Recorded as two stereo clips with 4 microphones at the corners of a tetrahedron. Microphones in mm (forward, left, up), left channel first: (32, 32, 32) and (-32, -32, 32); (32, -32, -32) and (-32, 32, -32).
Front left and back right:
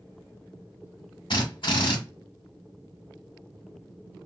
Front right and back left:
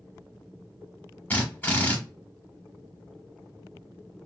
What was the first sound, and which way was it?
A drill, 25° left.